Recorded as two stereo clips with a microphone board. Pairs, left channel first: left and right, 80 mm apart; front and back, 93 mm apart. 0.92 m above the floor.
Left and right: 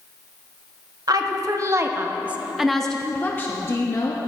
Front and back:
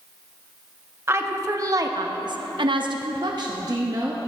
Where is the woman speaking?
120° right, 1.0 m; by 4.2 s 130° left, 1.0 m.